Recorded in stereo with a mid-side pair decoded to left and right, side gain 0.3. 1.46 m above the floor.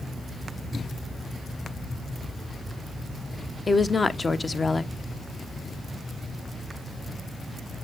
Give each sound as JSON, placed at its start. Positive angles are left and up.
{"t": 3.7, "sound": "a woman speaking", "azimuth_deg": 35, "distance_m": 0.8}